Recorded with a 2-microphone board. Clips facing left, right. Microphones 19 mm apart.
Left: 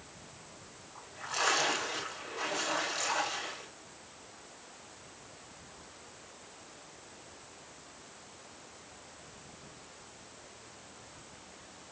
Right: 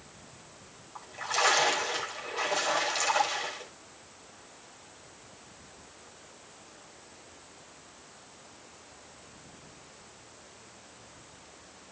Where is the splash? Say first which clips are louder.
Right 5 dB; 30° right (ahead or behind), 6.5 m.